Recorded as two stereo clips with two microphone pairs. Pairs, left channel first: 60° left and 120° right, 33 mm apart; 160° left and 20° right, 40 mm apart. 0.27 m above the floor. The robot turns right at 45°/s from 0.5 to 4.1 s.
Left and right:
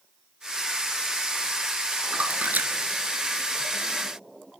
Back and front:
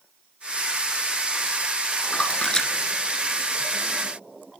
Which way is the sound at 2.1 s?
150° right.